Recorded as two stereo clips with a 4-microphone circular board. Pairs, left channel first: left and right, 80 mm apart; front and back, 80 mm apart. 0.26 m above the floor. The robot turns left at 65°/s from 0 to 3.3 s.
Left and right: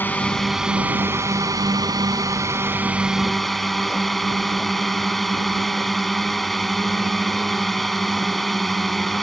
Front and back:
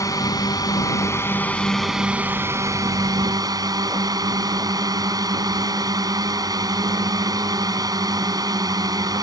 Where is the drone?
30° left; by 9.2 s 175° left.